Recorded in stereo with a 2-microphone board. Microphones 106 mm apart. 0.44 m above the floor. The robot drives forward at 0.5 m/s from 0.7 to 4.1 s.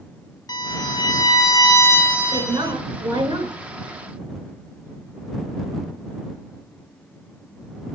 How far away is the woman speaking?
About 5 m.